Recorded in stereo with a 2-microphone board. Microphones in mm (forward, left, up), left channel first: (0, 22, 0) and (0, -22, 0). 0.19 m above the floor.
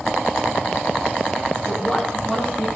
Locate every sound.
1.7 s a woman speaking: 10° left (ahead or behind), 5.5 m